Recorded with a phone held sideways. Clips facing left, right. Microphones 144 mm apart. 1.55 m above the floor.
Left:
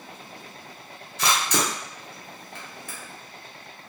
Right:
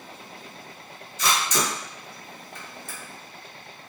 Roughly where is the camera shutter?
Left.